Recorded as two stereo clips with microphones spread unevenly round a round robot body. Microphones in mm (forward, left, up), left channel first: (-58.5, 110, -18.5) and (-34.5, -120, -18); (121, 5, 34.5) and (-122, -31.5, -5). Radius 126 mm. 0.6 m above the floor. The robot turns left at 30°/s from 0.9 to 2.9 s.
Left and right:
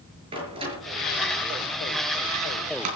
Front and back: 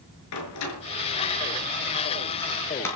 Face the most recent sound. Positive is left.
turn(degrees=-75)